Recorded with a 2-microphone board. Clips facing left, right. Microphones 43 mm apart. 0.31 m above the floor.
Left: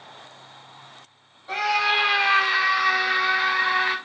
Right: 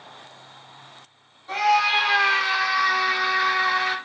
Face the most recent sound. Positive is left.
turn(degrees=35)  # may be behind; listen again after turning